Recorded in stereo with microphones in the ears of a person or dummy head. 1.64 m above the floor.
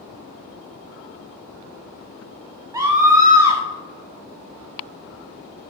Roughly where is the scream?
Centre.